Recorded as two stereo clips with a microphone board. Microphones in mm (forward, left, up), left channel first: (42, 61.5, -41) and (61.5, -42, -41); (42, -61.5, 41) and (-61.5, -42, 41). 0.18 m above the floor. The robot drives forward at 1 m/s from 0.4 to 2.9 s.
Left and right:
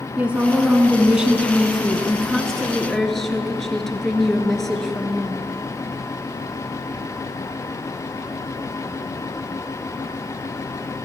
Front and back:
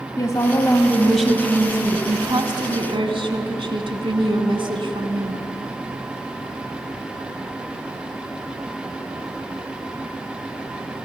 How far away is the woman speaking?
About 1.5 m.